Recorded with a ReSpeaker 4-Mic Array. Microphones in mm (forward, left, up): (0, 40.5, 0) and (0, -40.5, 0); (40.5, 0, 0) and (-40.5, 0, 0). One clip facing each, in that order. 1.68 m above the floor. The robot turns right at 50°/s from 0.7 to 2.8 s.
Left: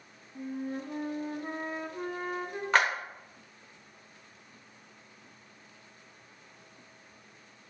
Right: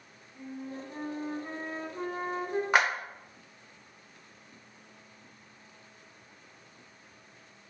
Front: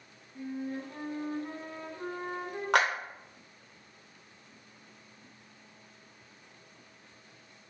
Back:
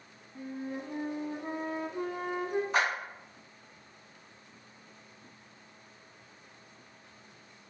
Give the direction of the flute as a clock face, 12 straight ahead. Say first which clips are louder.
Left 5 dB, front 1 dB; 8 o'clock.